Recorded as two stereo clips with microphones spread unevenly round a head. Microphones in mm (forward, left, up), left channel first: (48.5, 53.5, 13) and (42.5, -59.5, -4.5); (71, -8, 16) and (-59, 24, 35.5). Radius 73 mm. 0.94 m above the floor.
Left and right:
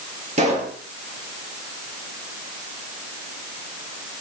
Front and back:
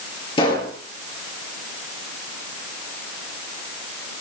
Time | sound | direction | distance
0.4 | a pop | 70° right | 7 m